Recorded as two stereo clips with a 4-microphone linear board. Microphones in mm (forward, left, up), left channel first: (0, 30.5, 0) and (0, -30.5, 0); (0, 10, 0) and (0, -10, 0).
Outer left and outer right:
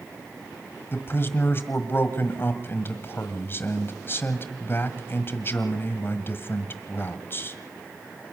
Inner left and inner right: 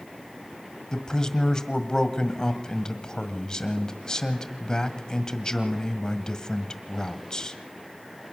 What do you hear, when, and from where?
0.9 s a man speaking: 40° left (ahead or behind), 1.6 m